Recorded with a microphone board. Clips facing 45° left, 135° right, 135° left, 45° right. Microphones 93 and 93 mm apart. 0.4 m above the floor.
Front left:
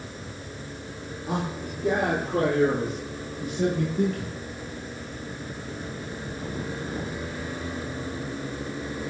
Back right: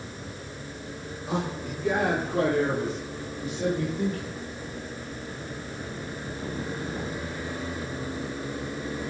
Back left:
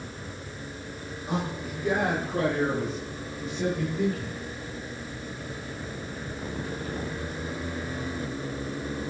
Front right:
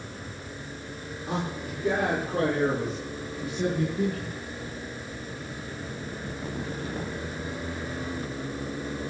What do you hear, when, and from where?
1.3 s a man speaking: 15° left, 8 m; by 4.4 s 25° left, 7 m